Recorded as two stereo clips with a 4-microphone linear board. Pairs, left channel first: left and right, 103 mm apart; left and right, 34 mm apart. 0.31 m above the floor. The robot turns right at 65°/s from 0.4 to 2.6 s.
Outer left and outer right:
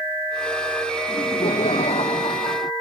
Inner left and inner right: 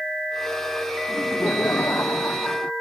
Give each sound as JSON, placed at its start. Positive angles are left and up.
{"t": 1.1, "sound": "laughter", "azimuth_deg": 40}